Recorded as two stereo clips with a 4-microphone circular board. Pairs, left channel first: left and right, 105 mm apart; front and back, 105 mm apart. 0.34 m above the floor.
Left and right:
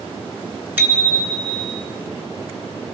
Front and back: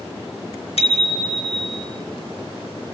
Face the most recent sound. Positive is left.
turn(degrees=-45)